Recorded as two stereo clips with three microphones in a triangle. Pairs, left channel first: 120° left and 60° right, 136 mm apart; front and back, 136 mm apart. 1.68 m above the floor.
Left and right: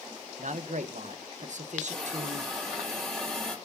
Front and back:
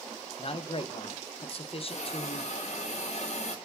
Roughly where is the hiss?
Ahead left.